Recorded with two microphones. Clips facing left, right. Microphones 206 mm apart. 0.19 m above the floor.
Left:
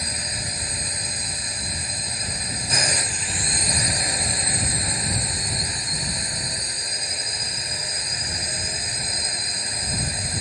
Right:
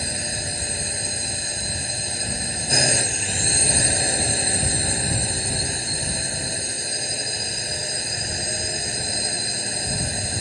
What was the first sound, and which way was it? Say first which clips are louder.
A drone: right 4 dB; 30° right (ahead or behind).